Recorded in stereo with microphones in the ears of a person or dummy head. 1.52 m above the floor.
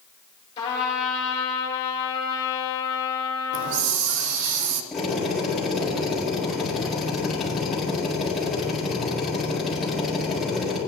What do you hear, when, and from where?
0.6 s a trumpet: 25° left (ahead or behind), 3 m
3.5 s a hiss: 55° right (ahead or behind), 0.6 m
4.9 s a drill: centre (ahead or behind), 4 m